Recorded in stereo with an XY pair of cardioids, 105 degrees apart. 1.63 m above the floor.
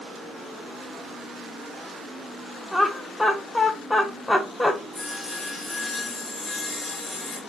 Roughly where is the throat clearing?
No throat clearing in this recording.